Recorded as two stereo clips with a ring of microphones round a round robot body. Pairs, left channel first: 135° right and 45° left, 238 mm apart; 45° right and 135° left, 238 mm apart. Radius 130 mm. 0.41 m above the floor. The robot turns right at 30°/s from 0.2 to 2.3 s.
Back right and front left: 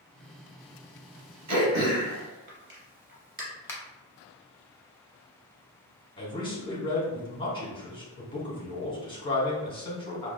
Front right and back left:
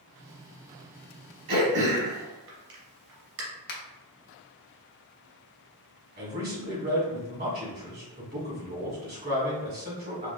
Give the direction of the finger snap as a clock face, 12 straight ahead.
2 o'clock.